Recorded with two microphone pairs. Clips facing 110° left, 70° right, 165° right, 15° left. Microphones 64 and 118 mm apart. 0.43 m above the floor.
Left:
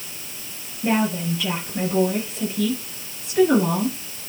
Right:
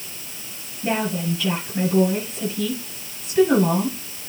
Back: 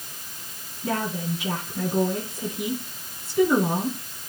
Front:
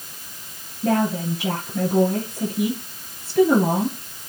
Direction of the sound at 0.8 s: 35° left.